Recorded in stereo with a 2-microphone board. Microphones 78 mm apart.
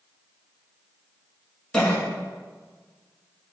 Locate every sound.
1.7 s a cough: 10° left (ahead or behind), 2.5 m